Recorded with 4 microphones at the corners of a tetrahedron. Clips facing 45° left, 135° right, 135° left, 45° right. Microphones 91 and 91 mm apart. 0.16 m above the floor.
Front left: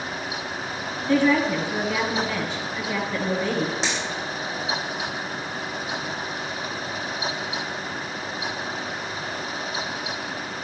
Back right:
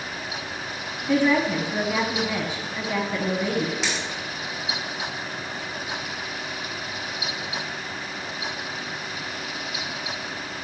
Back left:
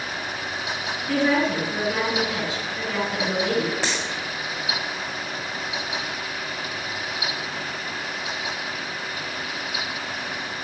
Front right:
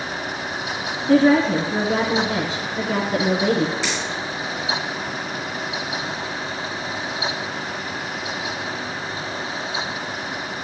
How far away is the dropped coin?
About 5 m.